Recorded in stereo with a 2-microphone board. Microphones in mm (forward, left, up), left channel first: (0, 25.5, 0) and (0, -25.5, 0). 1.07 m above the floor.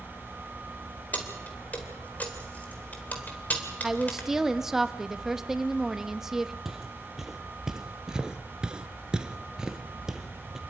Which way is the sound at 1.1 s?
30° left (ahead or behind).